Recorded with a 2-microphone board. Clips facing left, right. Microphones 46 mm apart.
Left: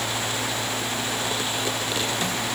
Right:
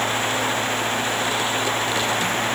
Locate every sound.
Only background noise.